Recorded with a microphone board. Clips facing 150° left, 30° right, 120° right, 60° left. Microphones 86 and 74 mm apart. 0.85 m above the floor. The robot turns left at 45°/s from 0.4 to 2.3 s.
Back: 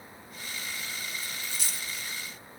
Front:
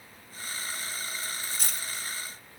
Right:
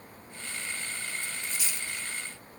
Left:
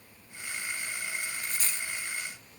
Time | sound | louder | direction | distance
1.2 | a dropped coin | front 1 dB, left 1 dB | 35° left | 2.5 m